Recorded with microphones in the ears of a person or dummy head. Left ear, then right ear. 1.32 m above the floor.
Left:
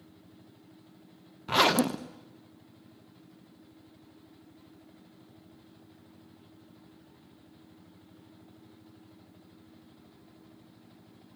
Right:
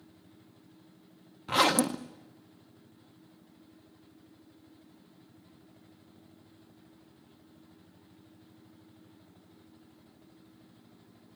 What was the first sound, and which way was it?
A zipper, centre (ahead or behind).